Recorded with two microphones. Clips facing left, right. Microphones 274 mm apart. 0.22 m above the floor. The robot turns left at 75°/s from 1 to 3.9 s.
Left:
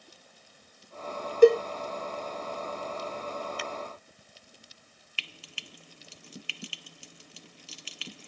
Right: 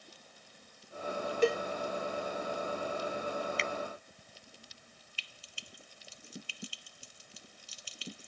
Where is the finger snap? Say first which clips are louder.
Right 1 dB; 25° right (ahead or behind); by 3.7 s 30° right (ahead or behind).